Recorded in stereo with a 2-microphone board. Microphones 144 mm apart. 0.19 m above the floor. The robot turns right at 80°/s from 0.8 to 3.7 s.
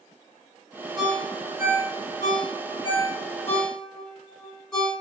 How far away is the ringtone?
About 1.3 m.